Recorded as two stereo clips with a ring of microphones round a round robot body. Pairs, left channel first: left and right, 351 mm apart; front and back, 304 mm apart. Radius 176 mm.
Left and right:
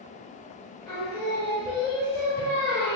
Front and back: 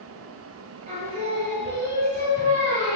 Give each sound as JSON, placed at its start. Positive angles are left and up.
{"t": 0.9, "sound": "singing", "azimuth_deg": 155, "distance_m": 1.5}